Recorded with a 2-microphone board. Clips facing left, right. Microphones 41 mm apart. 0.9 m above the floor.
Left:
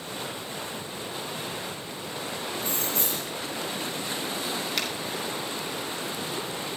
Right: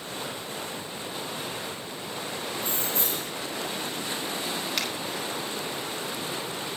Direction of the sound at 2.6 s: 30° right (ahead or behind).